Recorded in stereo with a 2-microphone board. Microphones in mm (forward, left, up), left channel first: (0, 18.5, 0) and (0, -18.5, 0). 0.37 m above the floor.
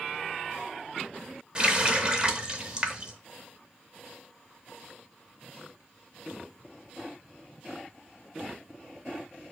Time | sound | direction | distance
1.6 | a running tap | 25° right (ahead or behind) | 0.6 m